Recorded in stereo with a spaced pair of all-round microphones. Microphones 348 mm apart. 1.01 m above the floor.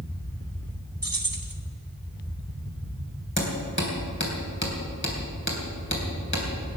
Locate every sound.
0.0 s a fan: 15° left (ahead or behind), 1.9 m
1.0 s keys jangling: 70° right (ahead or behind), 1.5 m
3.4 s hammering: 35° left (ahead or behind), 3.5 m